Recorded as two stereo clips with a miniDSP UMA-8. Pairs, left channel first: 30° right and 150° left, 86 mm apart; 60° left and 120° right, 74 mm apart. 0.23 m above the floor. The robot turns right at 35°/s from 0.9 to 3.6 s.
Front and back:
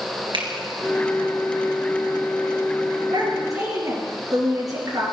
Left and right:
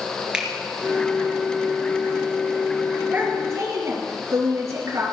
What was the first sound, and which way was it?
A finger snap, 160° left.